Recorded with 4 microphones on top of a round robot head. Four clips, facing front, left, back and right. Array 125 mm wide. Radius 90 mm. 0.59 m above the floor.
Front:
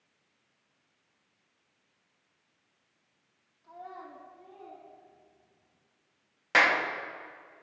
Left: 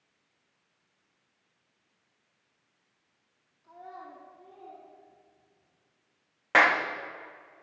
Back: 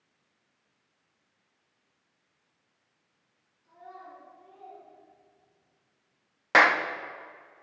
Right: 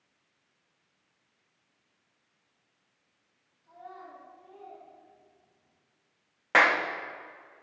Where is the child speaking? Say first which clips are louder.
Left 1 dB, front 2 dB; 10° left, 3 m; by 5.8 s 5° left, 5 m.